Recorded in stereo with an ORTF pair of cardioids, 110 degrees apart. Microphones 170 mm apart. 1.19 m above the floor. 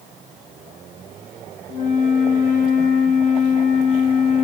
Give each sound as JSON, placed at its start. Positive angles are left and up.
{"t": 1.7, "sound": "a flute", "azimuth_deg": 50, "distance_m": 0.9}